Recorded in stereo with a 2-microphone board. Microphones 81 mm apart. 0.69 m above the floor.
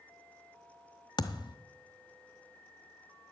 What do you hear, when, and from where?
1.2 s a thud: 70° left (ahead or behind), 0.7 m